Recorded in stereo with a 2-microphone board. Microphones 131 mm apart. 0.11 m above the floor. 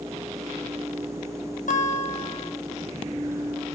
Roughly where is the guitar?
Left.